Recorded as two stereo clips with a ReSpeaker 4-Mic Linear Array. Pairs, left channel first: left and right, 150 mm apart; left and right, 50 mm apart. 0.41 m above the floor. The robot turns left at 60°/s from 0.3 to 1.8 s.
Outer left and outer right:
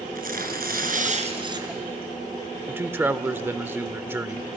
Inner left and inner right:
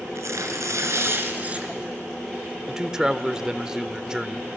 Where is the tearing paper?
75° right, 2.5 m; by 1.7 s 160° right, 2.5 m.